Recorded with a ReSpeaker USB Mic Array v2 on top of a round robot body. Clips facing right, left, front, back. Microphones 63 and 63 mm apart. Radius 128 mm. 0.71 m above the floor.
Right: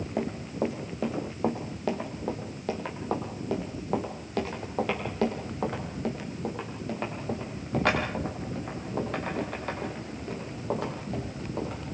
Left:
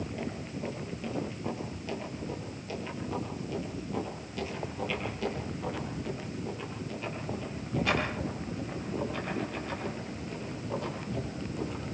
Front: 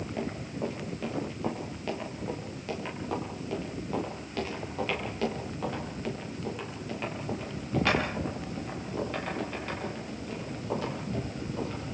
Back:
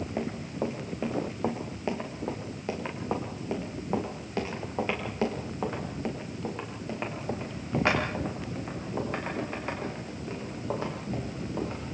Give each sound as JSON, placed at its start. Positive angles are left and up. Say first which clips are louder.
{"t": 0.2, "sound": "running footsteps", "louder": "right 7 dB, back 2 dB", "azimuth_deg": -115, "distance_m": 3.0}